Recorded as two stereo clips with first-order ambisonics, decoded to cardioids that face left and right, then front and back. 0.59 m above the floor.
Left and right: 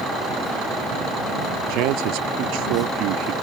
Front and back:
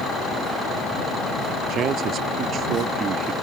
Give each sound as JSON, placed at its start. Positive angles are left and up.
{"t": 1.7, "sound": "a man speaking", "azimuth_deg": -125}